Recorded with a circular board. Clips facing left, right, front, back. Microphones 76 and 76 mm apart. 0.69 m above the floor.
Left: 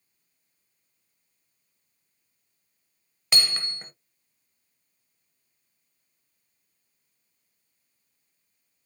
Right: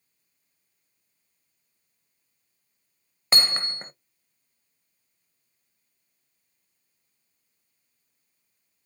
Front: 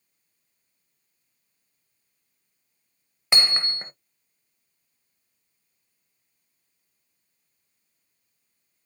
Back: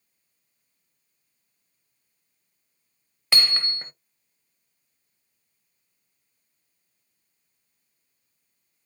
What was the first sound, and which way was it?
Hammering, 55° right.